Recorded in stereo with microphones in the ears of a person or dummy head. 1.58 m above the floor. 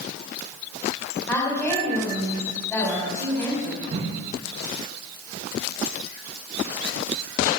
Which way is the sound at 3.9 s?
35° right (ahead or behind).